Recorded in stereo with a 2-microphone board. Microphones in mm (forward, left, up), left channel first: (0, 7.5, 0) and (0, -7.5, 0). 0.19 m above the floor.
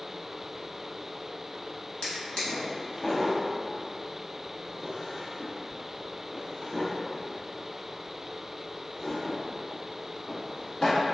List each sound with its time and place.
2.0 s a drawer: 60° left (ahead or behind), 1.0 m